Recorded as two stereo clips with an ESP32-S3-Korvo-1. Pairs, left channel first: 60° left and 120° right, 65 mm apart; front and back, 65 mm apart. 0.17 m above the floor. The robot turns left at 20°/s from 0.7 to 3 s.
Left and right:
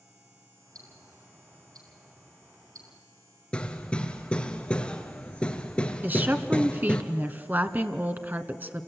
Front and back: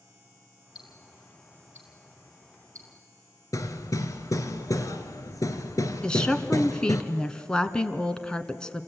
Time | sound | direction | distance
0.8 | ticking | 95° right | 2.5 m
3.5 | hammering | 10° right | 1.7 m
6.0 | a woman speaking | 75° right | 1.4 m